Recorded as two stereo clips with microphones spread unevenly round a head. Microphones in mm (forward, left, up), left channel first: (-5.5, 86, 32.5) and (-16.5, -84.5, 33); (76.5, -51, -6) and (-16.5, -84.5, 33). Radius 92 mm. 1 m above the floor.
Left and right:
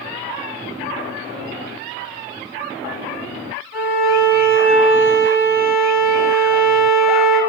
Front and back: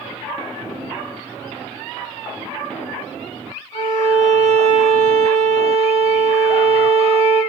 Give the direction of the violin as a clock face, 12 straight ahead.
10 o'clock.